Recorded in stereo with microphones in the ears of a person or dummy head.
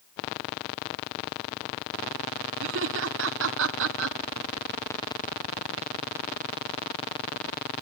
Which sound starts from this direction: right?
Laughter, at 2.6 s.